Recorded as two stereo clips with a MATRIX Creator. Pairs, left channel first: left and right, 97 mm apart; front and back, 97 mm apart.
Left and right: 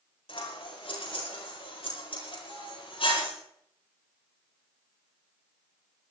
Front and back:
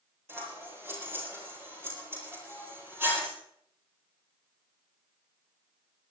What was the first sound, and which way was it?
Scissors, 115° left.